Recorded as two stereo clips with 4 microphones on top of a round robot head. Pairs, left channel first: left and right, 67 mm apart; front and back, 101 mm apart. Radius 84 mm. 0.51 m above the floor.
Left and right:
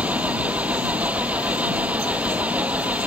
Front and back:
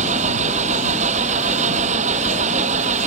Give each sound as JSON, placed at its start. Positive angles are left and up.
{"t": 0.0, "sound": "an engine running", "azimuth_deg": -165}